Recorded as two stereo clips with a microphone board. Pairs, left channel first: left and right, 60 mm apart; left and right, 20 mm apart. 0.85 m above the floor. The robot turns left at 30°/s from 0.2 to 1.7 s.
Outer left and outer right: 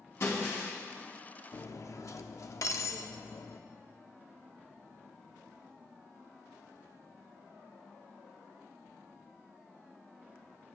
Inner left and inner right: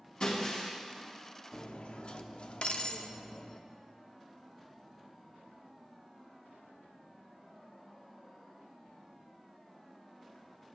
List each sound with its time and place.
0.2 s breaking glass: 55° left (ahead or behind), 4.5 m; by 0.7 s 40° left (ahead or behind), 4.5 m
1.5 s cutlery clinking: 65° left (ahead or behind), 0.7 m; by 3.6 s 60° left (ahead or behind), 0.7 m